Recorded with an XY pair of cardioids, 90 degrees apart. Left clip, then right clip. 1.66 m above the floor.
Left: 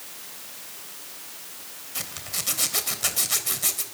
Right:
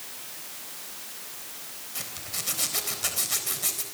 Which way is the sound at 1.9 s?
30° left.